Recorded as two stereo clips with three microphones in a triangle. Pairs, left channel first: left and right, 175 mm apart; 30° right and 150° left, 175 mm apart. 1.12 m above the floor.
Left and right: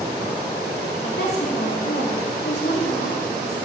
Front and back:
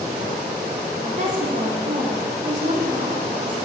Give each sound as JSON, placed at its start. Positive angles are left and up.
{"t": 1.0, "sound": "a woman speaking", "azimuth_deg": 105, "distance_m": 3.0}